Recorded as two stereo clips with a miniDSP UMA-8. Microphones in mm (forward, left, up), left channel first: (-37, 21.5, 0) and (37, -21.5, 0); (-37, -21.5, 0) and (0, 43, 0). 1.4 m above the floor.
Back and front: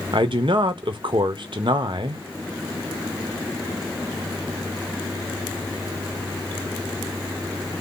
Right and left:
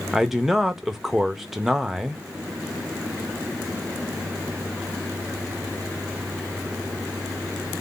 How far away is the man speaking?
About 0.7 m.